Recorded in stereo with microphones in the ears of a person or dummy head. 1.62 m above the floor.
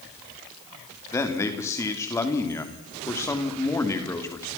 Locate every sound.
1.1 s a man speaking: 10° left (ahead or behind), 3 m